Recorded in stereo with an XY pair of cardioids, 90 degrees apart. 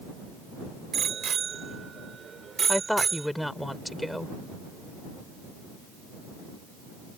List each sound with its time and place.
0.9 s a bicycle bell: 60° right; by 3.3 s 35° right
2.7 s a woman speaking: 5° left